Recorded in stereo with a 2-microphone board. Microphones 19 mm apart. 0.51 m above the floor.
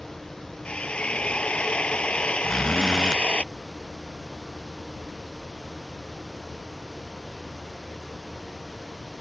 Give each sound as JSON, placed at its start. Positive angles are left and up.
{"t": 0.7, "sound": "a drill", "side_deg": 80}
{"t": 2.4, "sound": "a zipper", "side_deg": 0}